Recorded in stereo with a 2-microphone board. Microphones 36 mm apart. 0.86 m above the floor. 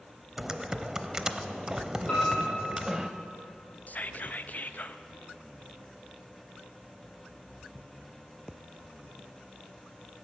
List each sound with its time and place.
0.4 s typing on a keyboard: 15° right (ahead or behind), 0.7 m
2.1 s a piano: 25° left (ahead or behind), 5 m
3.9 s whispering: 50° left (ahead or behind), 0.6 m